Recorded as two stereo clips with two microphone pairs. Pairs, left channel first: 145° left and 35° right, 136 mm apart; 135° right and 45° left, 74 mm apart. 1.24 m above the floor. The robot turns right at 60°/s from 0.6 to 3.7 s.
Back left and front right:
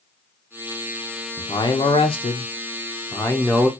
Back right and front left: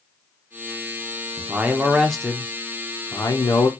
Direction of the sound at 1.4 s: 100° left.